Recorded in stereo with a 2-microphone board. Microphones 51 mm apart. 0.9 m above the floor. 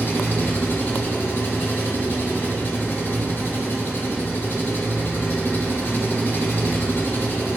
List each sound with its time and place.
0.0 s an engine running: 45° left (ahead or behind), 3.5 m